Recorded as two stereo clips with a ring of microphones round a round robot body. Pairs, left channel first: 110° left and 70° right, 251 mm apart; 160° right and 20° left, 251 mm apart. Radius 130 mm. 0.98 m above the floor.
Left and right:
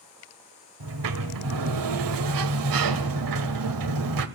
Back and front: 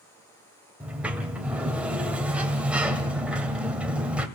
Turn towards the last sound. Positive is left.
turn(degrees=-65)